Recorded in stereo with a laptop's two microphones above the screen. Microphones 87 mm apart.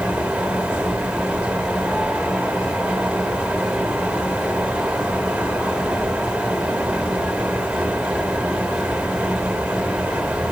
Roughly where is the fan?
Centre.